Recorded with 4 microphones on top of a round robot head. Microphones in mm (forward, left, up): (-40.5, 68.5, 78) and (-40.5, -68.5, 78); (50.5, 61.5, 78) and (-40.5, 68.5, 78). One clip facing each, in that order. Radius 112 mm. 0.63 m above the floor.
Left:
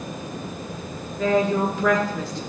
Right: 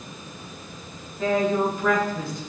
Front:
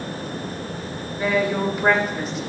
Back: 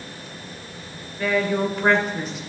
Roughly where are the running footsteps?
I don't hear running footsteps.